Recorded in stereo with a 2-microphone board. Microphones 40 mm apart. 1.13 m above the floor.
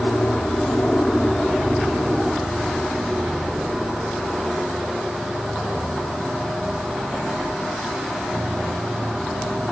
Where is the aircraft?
40° left (ahead or behind); by 9.7 s 35° right (ahead or behind).